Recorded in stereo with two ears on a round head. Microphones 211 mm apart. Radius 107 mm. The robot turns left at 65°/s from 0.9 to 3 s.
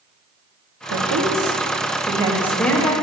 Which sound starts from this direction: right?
A woman speaking, at 0.9 s.